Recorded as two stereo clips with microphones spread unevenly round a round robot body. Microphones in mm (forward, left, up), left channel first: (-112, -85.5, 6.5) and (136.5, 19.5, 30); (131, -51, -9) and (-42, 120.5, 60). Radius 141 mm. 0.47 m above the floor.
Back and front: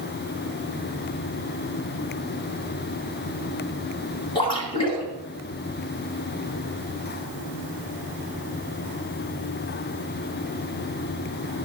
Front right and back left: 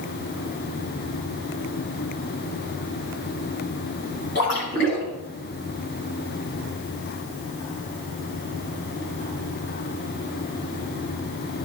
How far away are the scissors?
I don't hear scissors.